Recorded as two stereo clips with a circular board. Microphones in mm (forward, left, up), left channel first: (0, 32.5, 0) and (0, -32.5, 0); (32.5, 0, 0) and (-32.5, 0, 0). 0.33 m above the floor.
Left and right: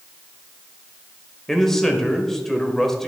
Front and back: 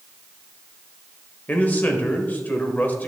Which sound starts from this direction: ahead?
A man speaking, at 1.5 s.